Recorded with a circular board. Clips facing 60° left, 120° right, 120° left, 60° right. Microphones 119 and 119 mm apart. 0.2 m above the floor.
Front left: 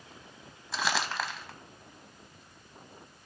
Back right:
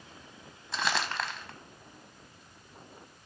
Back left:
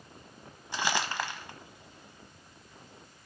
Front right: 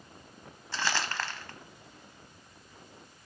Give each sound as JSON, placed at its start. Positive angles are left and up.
{"t": 0.7, "sound": "crumpling", "azimuth_deg": 140, "distance_m": 0.8}